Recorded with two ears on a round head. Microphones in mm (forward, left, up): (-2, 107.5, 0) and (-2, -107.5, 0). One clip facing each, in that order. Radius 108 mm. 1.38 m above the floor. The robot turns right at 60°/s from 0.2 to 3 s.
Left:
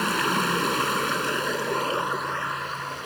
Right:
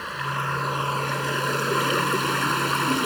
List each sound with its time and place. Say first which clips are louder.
0.0 s running water: left 8 dB; 110° left; by 3.1 s 85° right